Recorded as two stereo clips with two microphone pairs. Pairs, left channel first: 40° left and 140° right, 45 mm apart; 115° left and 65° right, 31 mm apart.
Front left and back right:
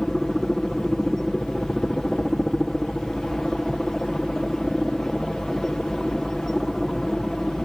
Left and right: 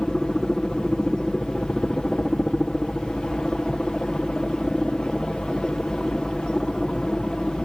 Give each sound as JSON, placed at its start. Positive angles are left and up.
{"t": 0.0, "sound": "a helicopter", "azimuth_deg": 110}